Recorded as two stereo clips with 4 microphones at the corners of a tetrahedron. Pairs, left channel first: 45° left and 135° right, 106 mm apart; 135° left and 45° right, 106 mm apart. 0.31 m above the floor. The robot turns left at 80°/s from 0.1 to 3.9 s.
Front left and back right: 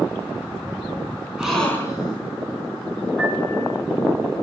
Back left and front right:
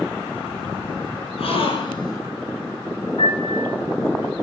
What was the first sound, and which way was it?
A gasp, 145° left.